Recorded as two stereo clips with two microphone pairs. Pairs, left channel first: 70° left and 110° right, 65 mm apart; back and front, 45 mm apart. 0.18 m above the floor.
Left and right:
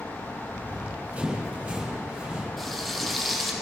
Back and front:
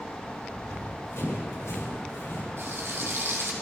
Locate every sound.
0.5 s running footsteps: 175° right, 5.5 m; by 2.5 s 170° left, 6.5 m
2.6 s frying: 15° right, 2.5 m